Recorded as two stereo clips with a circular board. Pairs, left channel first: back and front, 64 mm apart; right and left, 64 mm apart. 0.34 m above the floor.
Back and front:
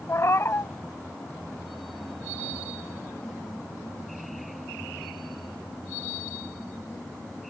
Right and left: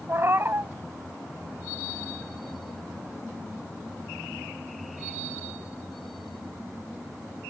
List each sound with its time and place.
0.1 s a cat meowing: 140° left, 0.6 m